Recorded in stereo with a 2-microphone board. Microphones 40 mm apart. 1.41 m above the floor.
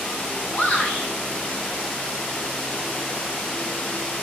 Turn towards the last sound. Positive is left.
turn(degrees=30)  # may be behind; listen again after turning